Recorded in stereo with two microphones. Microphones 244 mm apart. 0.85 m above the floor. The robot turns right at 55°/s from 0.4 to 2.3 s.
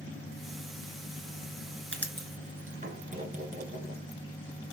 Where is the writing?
50° right (ahead or behind), 2 m; by 4.0 s 30° right (ahead or behind), 2 m.